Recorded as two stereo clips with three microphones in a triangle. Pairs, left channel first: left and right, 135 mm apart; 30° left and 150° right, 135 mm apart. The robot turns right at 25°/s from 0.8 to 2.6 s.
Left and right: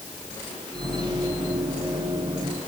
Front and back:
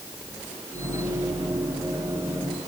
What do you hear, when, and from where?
Only background noise.